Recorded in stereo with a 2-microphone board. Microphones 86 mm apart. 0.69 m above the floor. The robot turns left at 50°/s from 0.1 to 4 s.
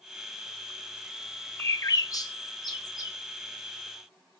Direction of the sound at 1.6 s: 30° left (ahead or behind).